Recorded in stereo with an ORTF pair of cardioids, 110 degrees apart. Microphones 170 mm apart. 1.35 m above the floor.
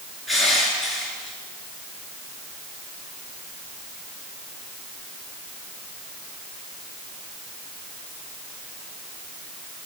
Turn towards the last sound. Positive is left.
turn(degrees=0)